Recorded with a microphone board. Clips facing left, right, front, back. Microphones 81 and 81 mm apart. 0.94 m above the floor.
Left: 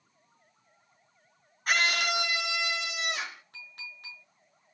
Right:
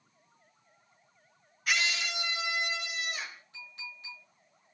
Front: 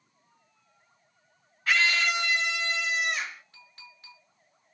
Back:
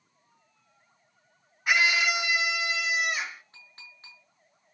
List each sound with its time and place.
1.7 s a scream: 110° left, 0.7 m; by 3.4 s 95° left, 2.5 m
3.5 s a clink: 125° left, 8 m